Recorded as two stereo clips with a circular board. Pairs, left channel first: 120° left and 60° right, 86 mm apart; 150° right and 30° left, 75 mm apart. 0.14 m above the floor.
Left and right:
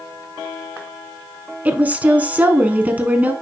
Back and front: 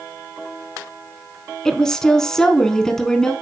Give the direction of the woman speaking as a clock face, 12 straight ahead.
3 o'clock.